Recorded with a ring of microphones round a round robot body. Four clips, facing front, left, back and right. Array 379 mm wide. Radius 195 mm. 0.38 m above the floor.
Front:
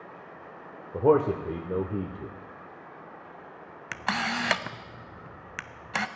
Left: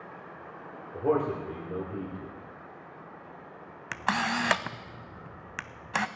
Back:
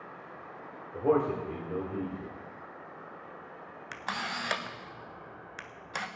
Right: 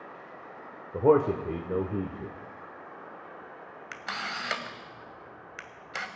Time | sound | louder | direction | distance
0.9 | a man speaking | right 5 dB, front 5 dB | 40° right | 1.2 m
3.9 | a camera shutter | left 8 dB, front 7 dB | 50° left | 0.6 m